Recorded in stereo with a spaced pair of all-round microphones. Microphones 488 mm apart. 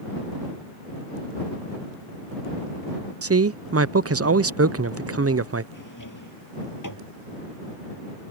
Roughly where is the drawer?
Left.